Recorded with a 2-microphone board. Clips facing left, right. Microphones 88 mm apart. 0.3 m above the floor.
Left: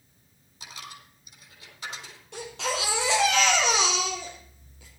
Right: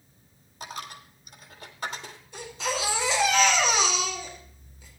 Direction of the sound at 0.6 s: 50° right (ahead or behind).